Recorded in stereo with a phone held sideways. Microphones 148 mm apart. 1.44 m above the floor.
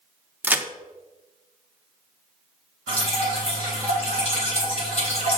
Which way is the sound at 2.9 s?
45° left (ahead or behind).